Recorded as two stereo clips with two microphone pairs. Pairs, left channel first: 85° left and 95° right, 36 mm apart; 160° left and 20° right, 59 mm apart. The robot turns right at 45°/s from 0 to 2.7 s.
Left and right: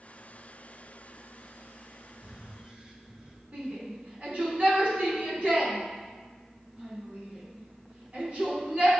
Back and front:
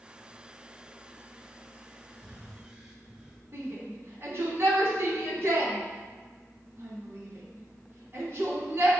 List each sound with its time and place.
2.2 s breathing: 95° right, 1.1 m; by 3.4 s 75° right, 1.1 m
3.5 s a shout: 55° right, 2 m